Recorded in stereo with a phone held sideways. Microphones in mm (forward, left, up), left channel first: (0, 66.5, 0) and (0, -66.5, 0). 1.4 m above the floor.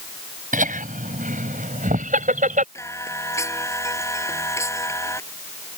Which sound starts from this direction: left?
Singing, at 2.8 s.